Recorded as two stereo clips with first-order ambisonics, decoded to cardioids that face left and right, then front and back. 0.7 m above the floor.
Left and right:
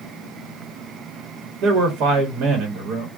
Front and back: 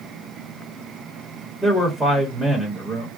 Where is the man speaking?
105° right, 1.1 m.